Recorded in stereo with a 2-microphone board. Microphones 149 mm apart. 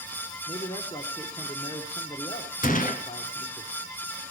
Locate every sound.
0.5 s a man speaking: 40° left (ahead or behind), 1.3 m
2.6 s a gunshot: 65° left (ahead or behind), 1.0 m